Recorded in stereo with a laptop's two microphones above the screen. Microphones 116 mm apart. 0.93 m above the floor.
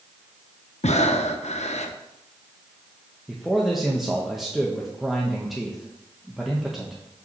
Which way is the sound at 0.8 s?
75° left (ahead or behind).